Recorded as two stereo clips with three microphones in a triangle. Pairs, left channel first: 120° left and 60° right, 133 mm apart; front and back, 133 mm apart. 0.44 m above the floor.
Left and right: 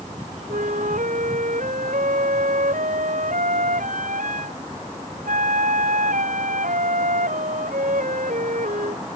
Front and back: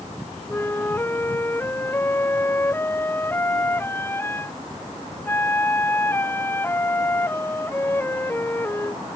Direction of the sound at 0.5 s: 75° right.